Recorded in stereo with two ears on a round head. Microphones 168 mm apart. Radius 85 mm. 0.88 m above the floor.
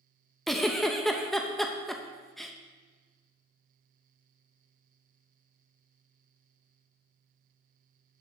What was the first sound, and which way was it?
A giggle, centre (ahead or behind).